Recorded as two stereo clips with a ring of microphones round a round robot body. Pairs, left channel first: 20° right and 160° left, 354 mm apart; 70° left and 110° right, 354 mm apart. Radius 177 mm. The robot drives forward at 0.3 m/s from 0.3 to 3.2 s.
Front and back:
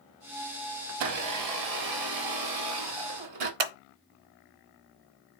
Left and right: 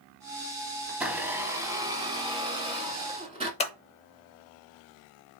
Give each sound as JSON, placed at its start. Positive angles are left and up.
{"t": 0.9, "sound": "a blender", "azimuth_deg": 160, "distance_m": 0.5}
{"t": 3.6, "sound": "scissors", "azimuth_deg": 140, "distance_m": 0.6}